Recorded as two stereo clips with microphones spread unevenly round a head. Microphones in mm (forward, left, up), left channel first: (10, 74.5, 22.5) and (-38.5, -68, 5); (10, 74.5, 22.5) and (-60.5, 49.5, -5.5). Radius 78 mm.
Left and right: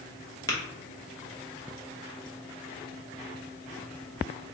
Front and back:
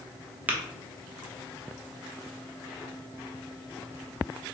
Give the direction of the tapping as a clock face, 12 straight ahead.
8 o'clock.